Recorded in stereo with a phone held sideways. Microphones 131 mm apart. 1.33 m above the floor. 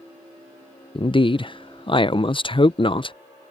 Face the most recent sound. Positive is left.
turn(degrees=40)  # may be behind; listen again after turning